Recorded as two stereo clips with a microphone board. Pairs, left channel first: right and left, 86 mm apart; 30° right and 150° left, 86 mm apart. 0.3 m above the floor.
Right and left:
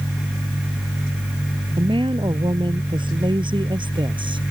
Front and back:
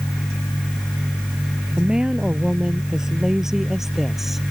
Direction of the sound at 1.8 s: 70° left.